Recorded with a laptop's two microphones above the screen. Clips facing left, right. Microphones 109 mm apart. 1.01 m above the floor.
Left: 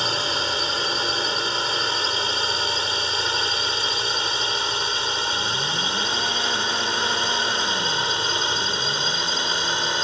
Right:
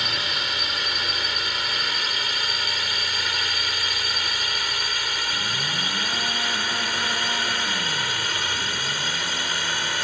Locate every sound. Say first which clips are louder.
0.0 s a drone: left 5 dB; 30° left (ahead or behind); by 10.0 s 25° left (ahead or behind)